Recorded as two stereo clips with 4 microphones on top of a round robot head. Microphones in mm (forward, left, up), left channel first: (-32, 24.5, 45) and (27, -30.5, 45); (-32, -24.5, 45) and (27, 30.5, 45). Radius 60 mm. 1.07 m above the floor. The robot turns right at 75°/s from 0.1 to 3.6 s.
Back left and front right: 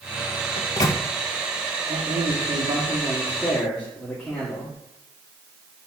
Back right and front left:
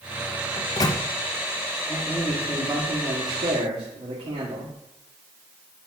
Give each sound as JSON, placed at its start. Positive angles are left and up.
{"t": 0.6, "sound": "a microwave", "azimuth_deg": 165, "distance_m": 0.9}
{"t": 1.9, "sound": "a man speaking", "azimuth_deg": -75, "distance_m": 2.0}